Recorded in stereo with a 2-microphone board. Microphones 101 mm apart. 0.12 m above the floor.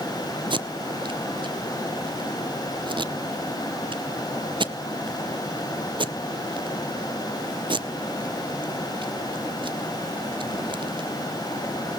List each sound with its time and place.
0.5 s tape being pulled: 55° right (ahead or behind), 0.6 m